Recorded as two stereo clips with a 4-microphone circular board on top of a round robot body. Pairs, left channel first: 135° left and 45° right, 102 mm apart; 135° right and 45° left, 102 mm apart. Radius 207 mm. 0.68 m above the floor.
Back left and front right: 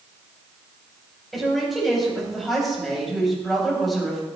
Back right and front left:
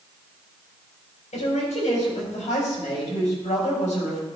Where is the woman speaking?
135° right, 4.5 m.